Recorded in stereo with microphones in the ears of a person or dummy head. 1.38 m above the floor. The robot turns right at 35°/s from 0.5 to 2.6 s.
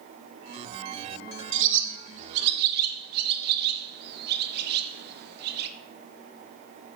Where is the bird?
55° right (ahead or behind), 0.9 m; by 5.7 s 60° right (ahead or behind), 0.9 m.